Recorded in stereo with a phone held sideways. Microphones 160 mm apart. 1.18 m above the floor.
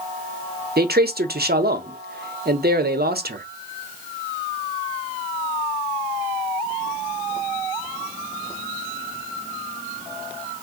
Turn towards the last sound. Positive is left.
turn(degrees=-80)